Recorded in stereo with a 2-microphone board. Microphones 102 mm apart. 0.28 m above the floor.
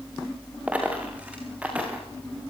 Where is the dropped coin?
15° right (ahead or behind), 7 m.